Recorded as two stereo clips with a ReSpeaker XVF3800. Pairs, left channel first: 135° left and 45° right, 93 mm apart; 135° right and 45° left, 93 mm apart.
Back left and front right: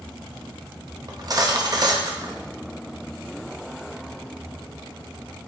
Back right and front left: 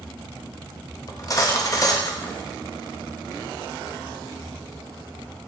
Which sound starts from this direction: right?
Cutlery clinking, at 1.1 s.